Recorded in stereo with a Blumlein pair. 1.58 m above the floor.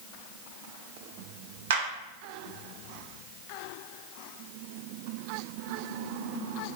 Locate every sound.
1.7 s a clap: 60° right, 1.2 m